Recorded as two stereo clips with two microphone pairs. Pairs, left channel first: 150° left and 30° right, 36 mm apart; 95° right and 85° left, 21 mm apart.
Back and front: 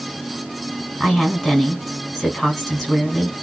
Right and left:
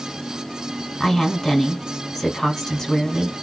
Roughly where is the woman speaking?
Behind right.